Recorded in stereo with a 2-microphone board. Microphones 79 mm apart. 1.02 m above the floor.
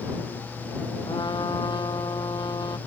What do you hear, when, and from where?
1.1 s a trumpet: 65° left (ahead or behind)